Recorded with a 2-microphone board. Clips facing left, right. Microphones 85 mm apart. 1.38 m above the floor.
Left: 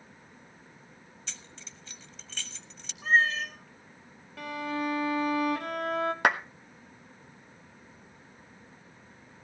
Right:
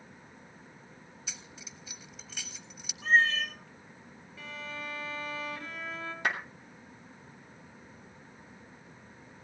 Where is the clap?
70° left (ahead or behind), 1.2 m.